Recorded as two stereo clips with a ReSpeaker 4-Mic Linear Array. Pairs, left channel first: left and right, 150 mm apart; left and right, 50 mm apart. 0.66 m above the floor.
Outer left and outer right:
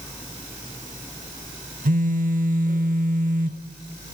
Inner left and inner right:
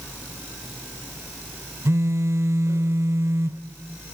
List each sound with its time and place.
1.9 s a phone buzzing: 65° right (ahead or behind), 0.7 m